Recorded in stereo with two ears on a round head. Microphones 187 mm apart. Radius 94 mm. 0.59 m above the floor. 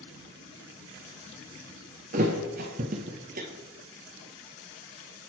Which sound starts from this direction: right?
A thud, at 2.1 s.